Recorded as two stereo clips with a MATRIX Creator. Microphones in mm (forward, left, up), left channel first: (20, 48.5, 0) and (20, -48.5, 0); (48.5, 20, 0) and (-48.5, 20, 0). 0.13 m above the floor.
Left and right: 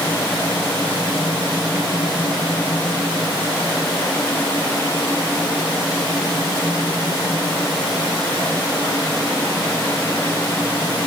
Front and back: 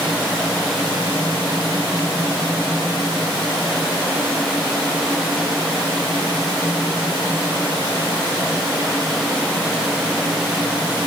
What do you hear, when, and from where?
Only background noise.